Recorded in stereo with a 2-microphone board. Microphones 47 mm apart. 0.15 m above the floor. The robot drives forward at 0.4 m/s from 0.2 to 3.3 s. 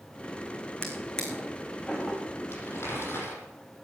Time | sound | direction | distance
0.8 | a drawer | 20° left (ahead or behind) | 3.5 m
2.5 | crumpling | 55° left (ahead or behind) | 6.5 m